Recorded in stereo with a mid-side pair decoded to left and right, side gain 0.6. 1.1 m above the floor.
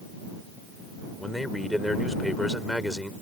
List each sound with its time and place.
1.2 s a man speaking: 5° left